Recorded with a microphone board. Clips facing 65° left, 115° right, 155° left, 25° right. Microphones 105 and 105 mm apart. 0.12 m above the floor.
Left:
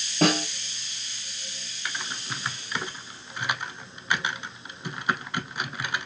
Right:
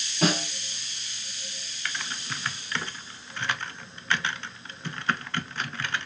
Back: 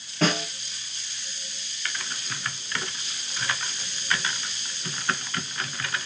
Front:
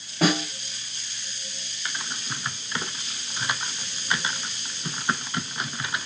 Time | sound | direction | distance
0.2 | a snare drum | 55° left | 2.5 m
1.9 | typing on a keyboard | 15° left | 0.5 m